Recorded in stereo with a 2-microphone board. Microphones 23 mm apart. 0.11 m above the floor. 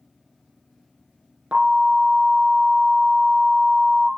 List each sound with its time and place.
1.5 s an alarm: 60° right (ahead or behind), 3.5 m